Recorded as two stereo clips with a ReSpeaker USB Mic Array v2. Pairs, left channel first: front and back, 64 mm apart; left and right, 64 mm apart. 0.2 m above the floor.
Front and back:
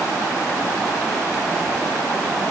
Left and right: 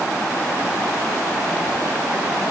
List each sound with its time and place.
Only background noise.